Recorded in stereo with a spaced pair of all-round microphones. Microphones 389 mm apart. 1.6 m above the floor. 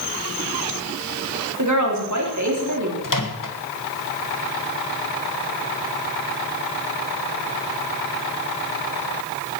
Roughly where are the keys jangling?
No keys jangling in this recording.